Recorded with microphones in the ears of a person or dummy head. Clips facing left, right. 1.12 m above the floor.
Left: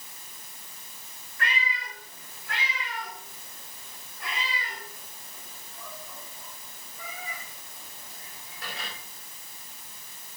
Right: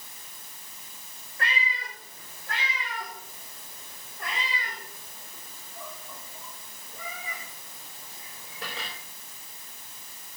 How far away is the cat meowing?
About 6 m.